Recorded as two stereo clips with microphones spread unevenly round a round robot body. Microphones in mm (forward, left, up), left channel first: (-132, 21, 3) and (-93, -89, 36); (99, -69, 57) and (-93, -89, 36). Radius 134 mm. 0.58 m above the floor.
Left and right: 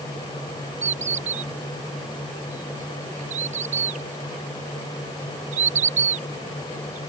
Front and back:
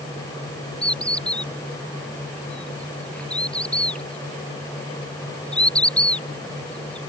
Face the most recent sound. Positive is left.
turn(degrees=-80)